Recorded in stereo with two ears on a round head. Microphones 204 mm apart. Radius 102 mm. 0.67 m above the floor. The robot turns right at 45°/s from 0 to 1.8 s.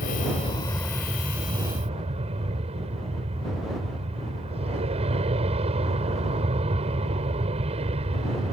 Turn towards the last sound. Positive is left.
turn(degrees=-150)